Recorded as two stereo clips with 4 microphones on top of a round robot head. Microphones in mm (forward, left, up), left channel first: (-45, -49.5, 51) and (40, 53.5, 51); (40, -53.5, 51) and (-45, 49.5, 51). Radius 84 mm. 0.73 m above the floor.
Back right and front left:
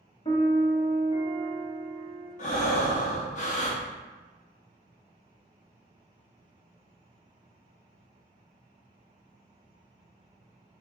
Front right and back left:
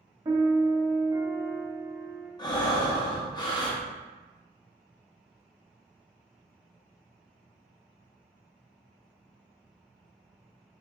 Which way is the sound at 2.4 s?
110° right.